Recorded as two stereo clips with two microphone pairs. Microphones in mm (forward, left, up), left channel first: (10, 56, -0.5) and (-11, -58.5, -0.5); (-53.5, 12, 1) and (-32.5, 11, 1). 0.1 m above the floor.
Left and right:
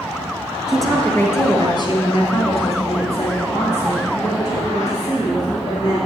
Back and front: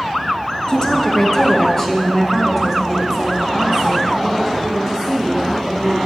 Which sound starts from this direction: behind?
A woman speaking, at 0.7 s.